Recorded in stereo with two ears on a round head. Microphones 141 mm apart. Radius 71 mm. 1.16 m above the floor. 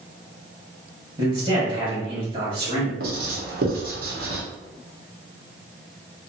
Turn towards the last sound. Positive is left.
turn(degrees=-60)  # may be behind; listen again after turning